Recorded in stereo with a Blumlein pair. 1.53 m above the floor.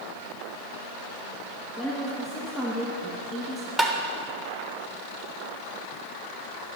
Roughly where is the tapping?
Ahead.